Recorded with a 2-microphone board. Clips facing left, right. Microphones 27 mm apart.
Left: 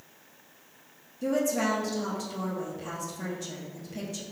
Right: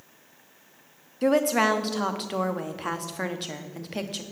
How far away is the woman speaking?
About 1.0 m.